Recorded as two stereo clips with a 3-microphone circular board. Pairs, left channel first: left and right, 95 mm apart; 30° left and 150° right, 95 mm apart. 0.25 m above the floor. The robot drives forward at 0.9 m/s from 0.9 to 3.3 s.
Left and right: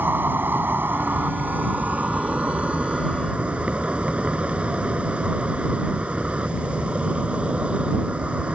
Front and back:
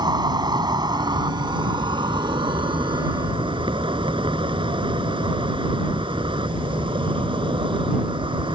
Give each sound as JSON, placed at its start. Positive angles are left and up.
{"t": 0.0, "sound": "an insect", "azimuth_deg": -150}